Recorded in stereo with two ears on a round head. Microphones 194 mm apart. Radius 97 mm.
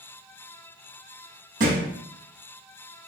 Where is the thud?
40° right (ahead or behind), 1.6 m.